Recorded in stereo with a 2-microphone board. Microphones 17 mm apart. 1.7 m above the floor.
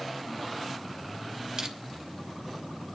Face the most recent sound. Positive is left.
turn(degrees=-55)  # may be behind; listen again after turning